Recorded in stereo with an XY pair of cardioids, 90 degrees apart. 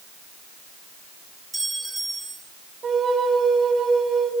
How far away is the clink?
About 4 m.